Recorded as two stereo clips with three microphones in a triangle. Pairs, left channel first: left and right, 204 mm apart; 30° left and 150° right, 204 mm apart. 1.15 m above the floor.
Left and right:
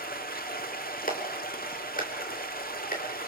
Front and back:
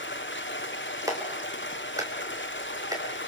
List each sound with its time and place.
0.0 s running water: 50° left, 1.8 m
1.1 s a clap: 135° left, 4.5 m